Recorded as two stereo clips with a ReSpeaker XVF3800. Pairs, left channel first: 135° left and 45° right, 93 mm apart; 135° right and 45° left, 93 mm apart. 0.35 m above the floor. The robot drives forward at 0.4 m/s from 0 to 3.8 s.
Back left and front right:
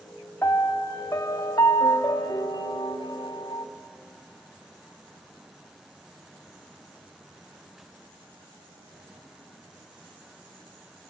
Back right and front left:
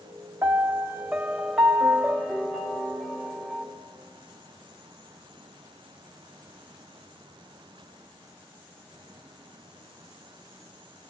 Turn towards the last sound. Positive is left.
turn(degrees=150)